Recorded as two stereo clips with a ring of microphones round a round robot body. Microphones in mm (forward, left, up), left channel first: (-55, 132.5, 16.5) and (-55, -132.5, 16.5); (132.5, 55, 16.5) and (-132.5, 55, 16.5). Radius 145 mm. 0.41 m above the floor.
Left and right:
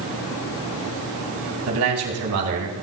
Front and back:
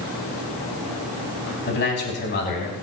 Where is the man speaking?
50° right, 3.5 m; by 2.7 s 55° right, 4 m.